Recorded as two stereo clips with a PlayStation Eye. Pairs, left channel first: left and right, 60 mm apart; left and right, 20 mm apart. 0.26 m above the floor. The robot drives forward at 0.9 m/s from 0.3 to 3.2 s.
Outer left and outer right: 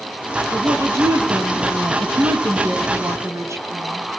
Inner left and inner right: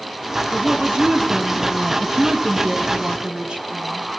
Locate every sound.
0.5 s a woman speaking: 50° right (ahead or behind), 2.5 m; by 4.0 s 55° right (ahead or behind), 2.5 m